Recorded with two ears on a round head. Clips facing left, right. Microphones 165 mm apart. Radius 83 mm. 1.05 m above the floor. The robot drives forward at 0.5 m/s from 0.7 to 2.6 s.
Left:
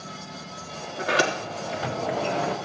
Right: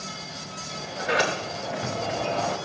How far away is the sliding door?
About 2.5 m.